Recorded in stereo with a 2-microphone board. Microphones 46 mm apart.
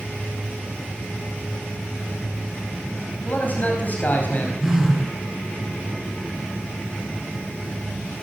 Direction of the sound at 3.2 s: 40° left (ahead or behind).